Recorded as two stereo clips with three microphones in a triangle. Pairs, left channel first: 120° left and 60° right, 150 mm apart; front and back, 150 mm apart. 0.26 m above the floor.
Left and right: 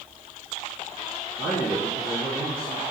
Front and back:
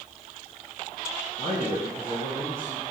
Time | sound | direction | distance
1.4 | a man speaking | 40° left | 3.5 m